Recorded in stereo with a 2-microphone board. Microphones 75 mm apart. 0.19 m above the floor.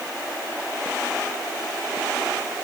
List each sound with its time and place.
Only background noise.